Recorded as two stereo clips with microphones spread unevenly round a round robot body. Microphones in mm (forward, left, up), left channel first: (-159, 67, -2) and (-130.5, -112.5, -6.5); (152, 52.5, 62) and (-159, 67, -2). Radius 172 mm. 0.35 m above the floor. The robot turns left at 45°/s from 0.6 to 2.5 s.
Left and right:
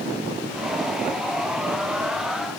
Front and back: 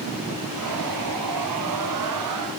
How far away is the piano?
I don't hear a piano.